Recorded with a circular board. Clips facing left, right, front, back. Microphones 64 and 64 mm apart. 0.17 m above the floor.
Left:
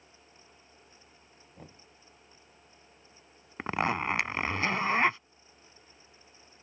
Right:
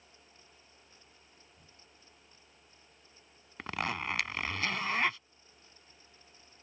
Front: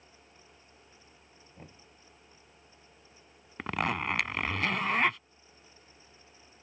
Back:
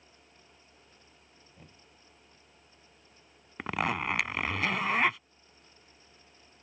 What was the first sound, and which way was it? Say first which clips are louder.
Knocking: left 10 dB, front 5 dB; 60° left.